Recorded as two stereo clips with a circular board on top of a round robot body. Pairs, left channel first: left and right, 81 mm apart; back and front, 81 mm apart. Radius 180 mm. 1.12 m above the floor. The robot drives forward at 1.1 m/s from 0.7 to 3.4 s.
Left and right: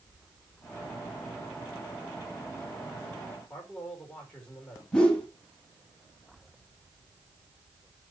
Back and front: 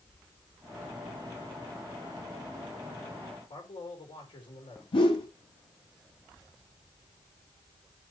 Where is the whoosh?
170° left, 2.5 m.